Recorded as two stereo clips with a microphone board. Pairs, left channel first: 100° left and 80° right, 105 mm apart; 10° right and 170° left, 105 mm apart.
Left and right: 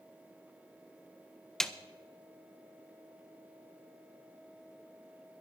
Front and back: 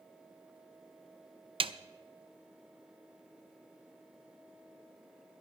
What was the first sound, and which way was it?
A snare drum, 175° right.